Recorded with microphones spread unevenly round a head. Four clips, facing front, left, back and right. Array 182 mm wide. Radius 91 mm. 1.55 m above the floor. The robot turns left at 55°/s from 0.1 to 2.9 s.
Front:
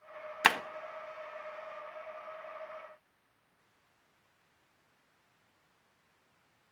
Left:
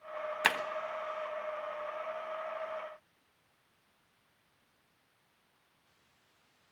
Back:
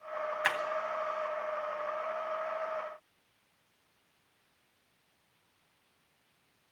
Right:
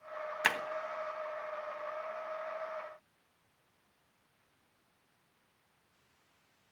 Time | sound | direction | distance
0.4 | breaking glass | 10° left | 1.2 m